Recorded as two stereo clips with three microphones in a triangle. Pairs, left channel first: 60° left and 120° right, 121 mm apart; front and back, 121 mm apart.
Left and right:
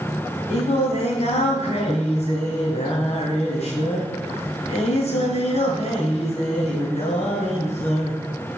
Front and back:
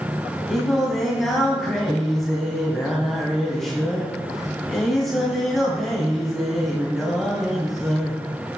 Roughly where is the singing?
Left.